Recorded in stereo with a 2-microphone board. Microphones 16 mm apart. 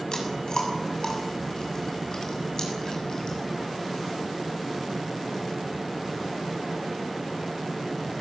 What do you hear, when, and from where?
0.1 s chewing: 40° left (ahead or behind), 7 m